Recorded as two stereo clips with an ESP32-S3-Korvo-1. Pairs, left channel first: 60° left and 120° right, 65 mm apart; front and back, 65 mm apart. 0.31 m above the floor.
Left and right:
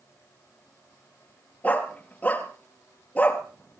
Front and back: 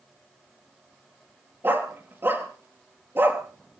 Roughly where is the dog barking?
Behind left.